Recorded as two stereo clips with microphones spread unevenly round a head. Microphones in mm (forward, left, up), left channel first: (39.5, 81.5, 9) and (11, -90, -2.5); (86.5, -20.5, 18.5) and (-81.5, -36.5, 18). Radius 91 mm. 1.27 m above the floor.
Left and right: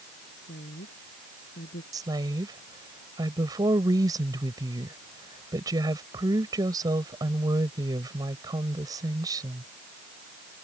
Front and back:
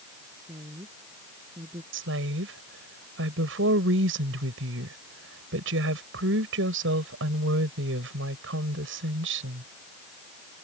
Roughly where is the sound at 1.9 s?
Behind.